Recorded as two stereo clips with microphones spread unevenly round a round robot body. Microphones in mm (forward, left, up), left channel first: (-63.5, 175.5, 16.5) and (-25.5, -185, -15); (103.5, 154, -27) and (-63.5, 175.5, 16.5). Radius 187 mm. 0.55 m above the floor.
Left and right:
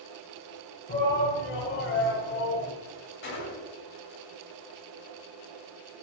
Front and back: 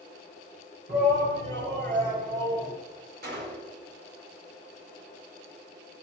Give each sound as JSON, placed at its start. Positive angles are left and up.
{"t": 0.9, "sound": "a shout", "azimuth_deg": 155, "distance_m": 6.5}
{"t": 3.2, "sound": "a gunshot", "azimuth_deg": 155, "distance_m": 4.5}